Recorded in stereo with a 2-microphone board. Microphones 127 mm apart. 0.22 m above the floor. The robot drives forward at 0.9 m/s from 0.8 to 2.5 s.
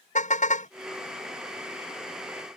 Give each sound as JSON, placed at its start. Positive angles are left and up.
{"t": 0.1, "sound": "a car horn", "side_deg": 70}